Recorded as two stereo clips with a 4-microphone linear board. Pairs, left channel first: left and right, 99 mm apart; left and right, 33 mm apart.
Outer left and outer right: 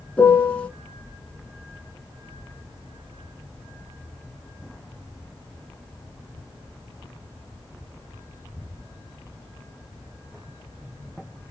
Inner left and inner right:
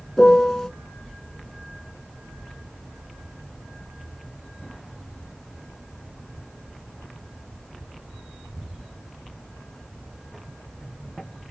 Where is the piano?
15° left (ahead or behind), 1.6 m.